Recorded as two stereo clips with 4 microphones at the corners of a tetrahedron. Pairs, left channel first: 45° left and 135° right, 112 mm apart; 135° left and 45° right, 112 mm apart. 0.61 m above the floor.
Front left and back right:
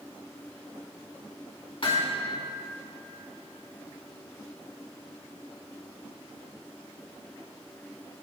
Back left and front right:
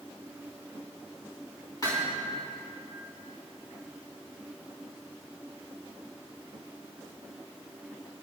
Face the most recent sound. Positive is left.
turn(degrees=80)